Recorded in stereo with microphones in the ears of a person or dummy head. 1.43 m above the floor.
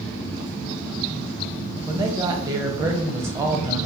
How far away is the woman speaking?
About 0.6 m.